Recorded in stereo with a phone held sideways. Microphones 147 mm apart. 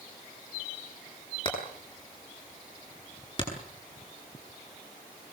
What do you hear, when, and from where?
1.4 s hammering: 35° left (ahead or behind), 10 m